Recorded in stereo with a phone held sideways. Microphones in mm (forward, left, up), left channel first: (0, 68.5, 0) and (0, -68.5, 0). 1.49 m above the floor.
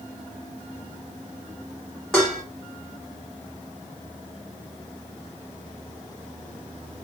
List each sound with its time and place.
2.1 s dishes clattering: 5° left (ahead or behind), 1.6 m